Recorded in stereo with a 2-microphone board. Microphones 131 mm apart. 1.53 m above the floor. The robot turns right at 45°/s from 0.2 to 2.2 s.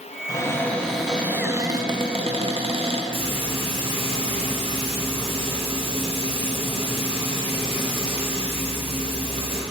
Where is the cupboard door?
150° left, 0.6 m; by 3.0 s 125° right, 0.6 m.